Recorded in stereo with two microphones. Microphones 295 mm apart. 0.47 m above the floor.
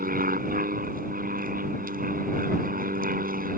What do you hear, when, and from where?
0.0 s an aircraft: 30° right (ahead or behind)